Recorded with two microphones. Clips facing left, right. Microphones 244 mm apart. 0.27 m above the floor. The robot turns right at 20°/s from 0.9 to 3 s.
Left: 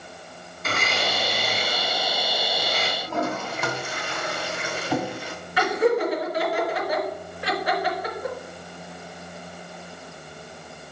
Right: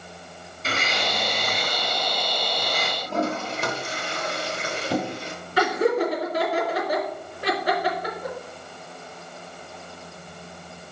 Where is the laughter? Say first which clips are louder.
Even; 40° right (ahead or behind), 3.5 m.